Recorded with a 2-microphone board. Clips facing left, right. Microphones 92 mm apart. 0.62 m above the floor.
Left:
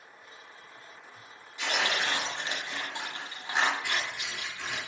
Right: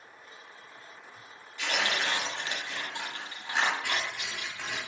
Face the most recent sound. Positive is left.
turn(degrees=-60)  # may be behind; listen again after turning